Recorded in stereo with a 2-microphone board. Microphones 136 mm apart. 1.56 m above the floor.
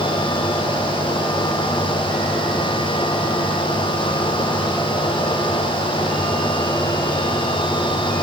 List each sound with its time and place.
Only background noise.